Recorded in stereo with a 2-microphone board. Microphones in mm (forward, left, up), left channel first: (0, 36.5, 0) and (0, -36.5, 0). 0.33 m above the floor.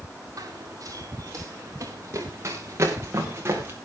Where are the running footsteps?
55° right (ahead or behind), 5 m; by 3.8 s 35° right (ahead or behind), 5 m.